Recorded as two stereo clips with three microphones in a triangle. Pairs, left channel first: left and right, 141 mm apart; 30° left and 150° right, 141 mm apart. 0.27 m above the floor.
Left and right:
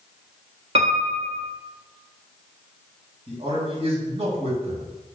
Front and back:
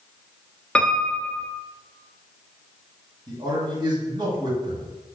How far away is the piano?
About 0.6 m.